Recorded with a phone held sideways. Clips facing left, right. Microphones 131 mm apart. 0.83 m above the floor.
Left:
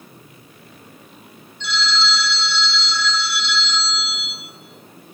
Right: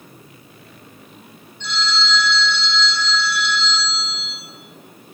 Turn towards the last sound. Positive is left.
turn(degrees=-50)  # may be behind; listen again after turning